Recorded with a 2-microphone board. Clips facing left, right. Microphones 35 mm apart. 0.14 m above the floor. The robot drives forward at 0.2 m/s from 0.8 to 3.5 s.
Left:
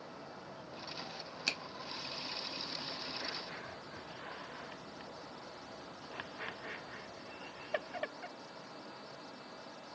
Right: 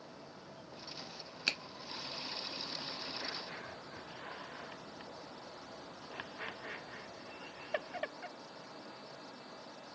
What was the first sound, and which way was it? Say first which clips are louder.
A finger snap: right 2 dB; 15° right (ahead or behind).